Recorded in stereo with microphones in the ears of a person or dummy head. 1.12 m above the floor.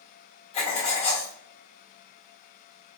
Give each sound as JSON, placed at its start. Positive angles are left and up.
{"t": 0.5, "sound": "writing", "side_deg": 40, "distance_m": 1.1}